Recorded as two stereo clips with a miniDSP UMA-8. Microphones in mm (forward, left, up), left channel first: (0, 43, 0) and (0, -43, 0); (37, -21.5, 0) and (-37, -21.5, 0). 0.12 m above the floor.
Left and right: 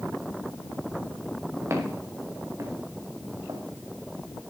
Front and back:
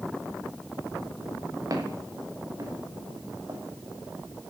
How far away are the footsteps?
About 5 m.